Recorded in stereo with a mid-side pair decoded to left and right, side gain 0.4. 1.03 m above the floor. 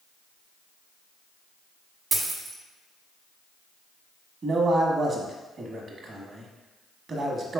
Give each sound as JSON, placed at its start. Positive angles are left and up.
{"t": 2.1, "sound": "a dropped coin", "azimuth_deg": -55, "distance_m": 1.3}
{"t": 4.4, "sound": "a man speaking", "azimuth_deg": -55, "distance_m": 1.3}